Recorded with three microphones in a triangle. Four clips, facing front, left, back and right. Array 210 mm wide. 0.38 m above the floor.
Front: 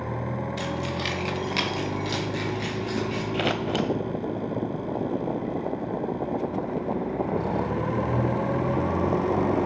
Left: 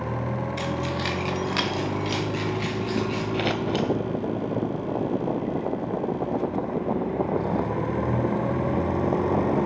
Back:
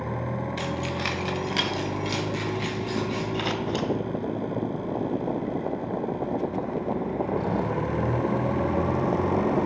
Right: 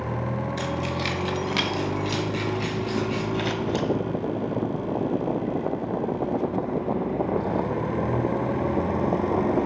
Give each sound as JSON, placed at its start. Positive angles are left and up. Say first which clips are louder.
{"t": 0.6, "sound": "keys jangling", "louder": "even, even", "azimuth_deg": -175, "distance_m": 1.3}
{"t": 3.3, "sound": "scissors", "louder": "left 3 dB, front 4 dB", "azimuth_deg": 35, "distance_m": 0.5}